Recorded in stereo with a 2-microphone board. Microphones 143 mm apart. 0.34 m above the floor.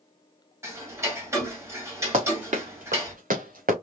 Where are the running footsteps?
45° right (ahead or behind), 2.5 m; by 3.7 s 75° right (ahead or behind), 2 m.